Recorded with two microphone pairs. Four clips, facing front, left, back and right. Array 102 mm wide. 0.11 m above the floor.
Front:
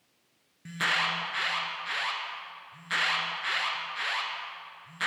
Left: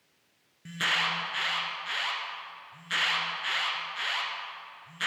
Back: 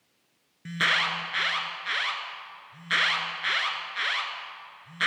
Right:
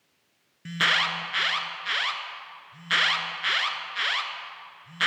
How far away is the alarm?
About 0.8 m.